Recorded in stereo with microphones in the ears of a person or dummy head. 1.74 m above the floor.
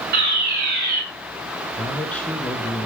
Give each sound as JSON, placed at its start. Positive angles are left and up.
{"t": 0.1, "sound": "a fire alarm", "side_deg": -55, "distance_m": 7.5}
{"t": 1.8, "sound": "a man speaking", "side_deg": 5, "distance_m": 1.5}